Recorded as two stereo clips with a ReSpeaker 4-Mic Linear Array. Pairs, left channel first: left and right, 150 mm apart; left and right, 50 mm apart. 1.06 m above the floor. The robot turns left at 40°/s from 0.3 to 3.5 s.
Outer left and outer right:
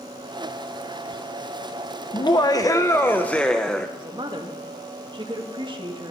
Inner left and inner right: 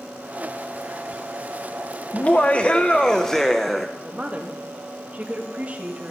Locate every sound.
2.1 s laughter: 65° left, 0.7 m; by 3.9 s 10° left, 0.7 m
4.0 s a woman speaking: 30° right (ahead or behind), 1.8 m